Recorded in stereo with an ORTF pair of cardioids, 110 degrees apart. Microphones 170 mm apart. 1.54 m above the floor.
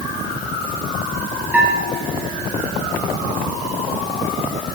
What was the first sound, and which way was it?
A bell, 5° right.